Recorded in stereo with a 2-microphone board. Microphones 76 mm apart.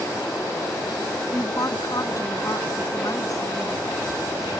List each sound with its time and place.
1.3 s a woman speaking: 50° left (ahead or behind)